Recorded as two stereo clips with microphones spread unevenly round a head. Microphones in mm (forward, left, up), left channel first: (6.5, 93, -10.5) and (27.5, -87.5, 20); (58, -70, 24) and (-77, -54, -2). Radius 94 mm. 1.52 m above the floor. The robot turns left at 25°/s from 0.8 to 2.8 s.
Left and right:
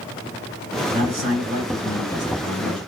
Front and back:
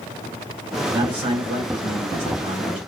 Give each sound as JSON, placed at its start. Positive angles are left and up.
{"t": 0.9, "sound": "a man speaking", "azimuth_deg": -135, "distance_m": 3.0}